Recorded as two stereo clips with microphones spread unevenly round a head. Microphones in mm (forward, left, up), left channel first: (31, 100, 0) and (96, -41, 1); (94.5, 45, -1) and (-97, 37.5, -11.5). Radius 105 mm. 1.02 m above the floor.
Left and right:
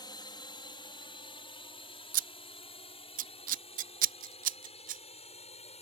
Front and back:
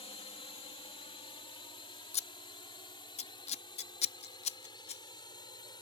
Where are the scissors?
50° right.